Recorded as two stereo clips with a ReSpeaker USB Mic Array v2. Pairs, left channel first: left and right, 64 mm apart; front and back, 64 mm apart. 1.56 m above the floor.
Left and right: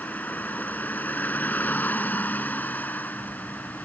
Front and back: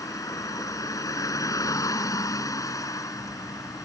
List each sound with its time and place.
0.0 s a vehicle: 25° left